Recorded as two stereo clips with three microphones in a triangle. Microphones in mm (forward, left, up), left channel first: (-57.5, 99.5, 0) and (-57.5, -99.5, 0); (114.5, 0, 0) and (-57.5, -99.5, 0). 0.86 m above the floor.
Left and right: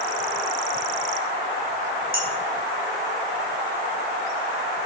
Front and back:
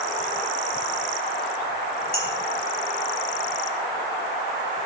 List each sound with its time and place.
2.1 s dishes clattering: 90° right, 4.5 m